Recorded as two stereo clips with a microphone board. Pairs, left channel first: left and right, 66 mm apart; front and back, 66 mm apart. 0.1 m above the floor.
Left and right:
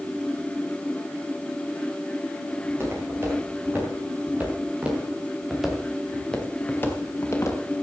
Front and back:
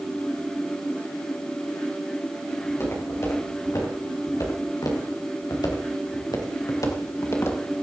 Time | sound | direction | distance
2.6 | footsteps | 40° right | 6.5 m